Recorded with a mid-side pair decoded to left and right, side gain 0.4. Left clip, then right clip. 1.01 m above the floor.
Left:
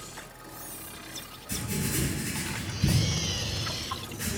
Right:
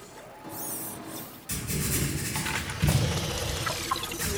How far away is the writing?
About 1.8 m.